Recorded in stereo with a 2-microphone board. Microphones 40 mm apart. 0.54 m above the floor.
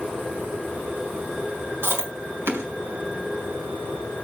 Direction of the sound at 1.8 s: 80° right.